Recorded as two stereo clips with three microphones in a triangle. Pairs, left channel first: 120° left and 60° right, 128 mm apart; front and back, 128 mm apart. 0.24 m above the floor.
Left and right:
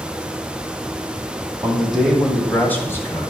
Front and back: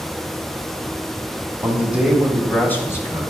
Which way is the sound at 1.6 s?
135° right.